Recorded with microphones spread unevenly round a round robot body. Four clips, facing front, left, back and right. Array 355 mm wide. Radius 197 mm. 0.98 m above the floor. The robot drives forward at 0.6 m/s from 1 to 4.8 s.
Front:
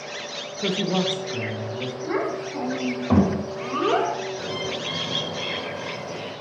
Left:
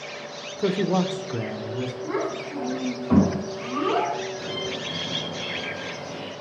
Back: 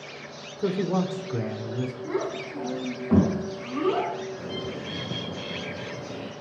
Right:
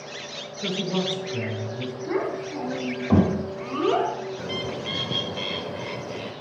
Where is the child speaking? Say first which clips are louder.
Right 4 dB, front 6 dB; 10° right, 3.5 m; by 4.1 s 15° right, 2.5 m.